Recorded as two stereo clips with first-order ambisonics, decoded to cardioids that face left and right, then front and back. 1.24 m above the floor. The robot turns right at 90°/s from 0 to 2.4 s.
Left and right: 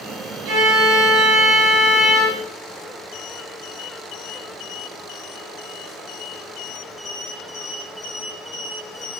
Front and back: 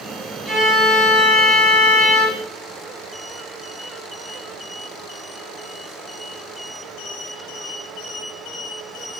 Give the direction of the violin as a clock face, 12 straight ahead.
3 o'clock.